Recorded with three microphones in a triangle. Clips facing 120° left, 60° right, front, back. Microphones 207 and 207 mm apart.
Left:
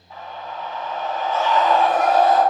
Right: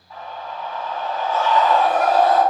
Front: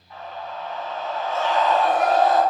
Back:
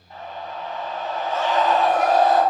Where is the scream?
175° left, 1.8 m.